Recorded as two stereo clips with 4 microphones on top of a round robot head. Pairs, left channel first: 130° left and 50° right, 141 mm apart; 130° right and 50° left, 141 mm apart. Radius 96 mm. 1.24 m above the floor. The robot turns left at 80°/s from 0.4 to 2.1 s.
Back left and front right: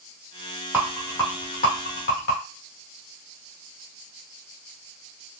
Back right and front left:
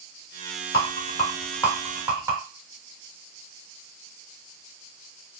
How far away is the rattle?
About 2 m.